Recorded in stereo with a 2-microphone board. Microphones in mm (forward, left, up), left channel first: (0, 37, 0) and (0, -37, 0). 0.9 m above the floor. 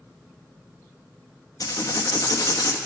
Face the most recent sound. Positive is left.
turn(degrees=60)  # may be behind; listen again after turning